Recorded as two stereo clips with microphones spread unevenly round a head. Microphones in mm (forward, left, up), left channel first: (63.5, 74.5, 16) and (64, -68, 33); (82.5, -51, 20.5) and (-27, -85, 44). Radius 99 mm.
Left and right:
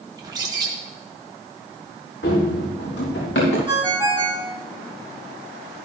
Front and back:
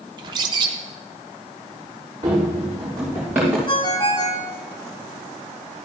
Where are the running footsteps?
130° left, 5.5 m; by 3.6 s 115° left, 6 m.